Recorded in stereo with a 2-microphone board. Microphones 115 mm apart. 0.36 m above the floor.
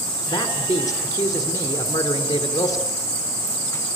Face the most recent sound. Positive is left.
turn(degrees=30)  # may be behind; listen again after turning